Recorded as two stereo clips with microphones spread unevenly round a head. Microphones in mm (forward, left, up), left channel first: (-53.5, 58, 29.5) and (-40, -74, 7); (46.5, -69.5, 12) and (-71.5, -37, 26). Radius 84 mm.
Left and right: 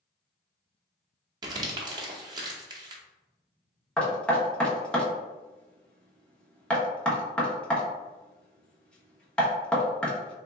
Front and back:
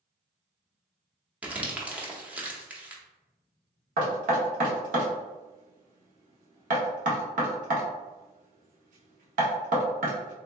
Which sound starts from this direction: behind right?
Crumpling, at 1.4 s.